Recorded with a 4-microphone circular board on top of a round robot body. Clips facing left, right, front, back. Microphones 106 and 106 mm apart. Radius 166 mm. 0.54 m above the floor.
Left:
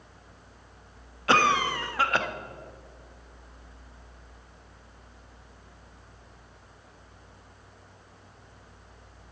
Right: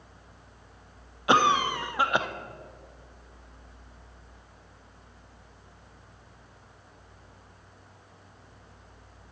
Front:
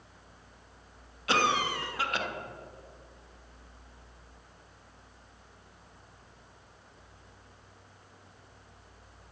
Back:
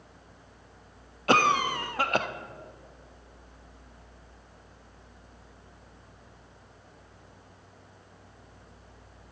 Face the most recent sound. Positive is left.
turn(degrees=-160)